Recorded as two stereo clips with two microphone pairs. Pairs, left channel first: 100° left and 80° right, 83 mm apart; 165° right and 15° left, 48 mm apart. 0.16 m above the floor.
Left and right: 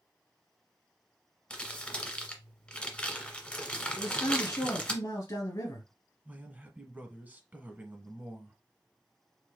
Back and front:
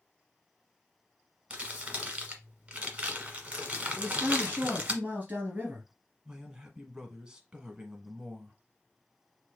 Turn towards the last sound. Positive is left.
turn(degrees=-40)